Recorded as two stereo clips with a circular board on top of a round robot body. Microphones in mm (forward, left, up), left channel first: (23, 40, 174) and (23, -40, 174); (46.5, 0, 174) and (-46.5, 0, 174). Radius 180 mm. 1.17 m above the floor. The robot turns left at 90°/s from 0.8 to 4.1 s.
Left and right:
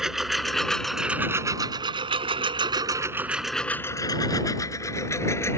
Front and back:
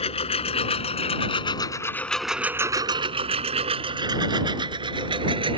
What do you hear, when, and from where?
0.0 s a lawn mower: 5° right; by 5.6 s 150° left